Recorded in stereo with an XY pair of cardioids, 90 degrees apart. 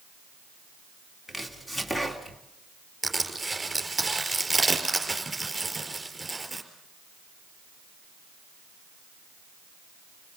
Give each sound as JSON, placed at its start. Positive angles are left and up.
{"t": 1.3, "sound": "chopping", "azimuth_deg": 15, "distance_m": 2.5}
{"t": 3.0, "sound": "crushing", "azimuth_deg": -20, "distance_m": 4.5}